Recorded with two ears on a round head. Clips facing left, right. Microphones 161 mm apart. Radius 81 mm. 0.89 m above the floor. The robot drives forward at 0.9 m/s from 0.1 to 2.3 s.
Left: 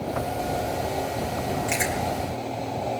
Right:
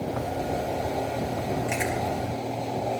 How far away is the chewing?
About 3.5 m.